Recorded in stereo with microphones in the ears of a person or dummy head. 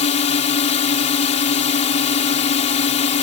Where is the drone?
35° left (ahead or behind).